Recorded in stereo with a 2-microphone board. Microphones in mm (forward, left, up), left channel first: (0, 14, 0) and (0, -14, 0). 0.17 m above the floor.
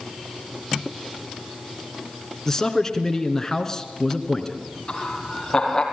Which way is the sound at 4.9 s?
25° left (ahead or behind).